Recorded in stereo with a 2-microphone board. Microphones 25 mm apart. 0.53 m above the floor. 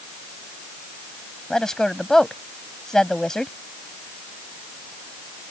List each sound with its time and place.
1.5 s a woman speaking: 20° left (ahead or behind)